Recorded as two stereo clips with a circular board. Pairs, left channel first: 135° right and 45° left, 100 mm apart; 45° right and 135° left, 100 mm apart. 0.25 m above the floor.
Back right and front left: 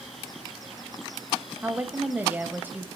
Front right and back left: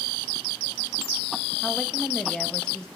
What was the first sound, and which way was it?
A woman speaking, 25° left.